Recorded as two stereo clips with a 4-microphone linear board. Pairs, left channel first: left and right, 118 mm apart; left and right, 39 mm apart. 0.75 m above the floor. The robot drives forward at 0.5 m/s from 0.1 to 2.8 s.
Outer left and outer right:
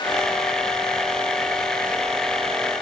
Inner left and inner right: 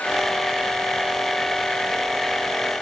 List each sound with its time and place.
Only background noise.